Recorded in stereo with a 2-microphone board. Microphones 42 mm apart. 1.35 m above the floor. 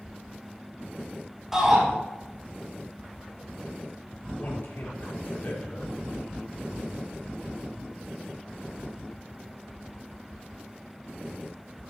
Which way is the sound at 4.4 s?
65° left (ahead or behind).